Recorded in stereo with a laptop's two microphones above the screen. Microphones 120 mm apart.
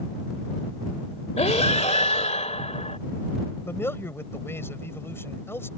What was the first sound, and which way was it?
Breathing, 70° left (ahead or behind).